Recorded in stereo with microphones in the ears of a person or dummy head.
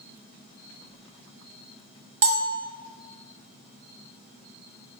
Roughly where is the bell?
Right.